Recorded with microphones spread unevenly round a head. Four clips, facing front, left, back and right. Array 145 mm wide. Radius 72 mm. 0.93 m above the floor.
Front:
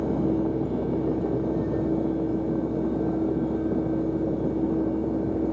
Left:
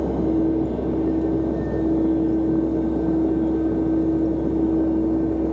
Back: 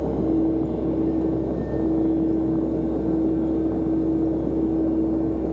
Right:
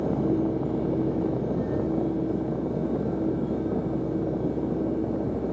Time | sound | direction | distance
0.0 | a fan | 125° left | 3 m